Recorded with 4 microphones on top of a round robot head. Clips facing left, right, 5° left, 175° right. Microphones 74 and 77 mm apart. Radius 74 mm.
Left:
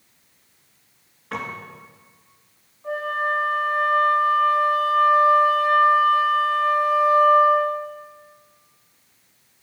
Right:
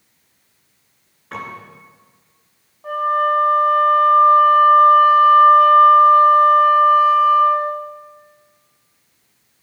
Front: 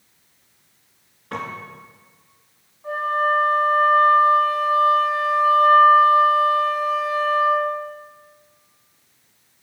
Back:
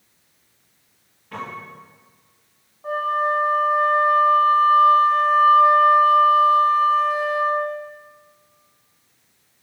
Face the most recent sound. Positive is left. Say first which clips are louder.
# right 7 dB, even
turn(degrees=-115)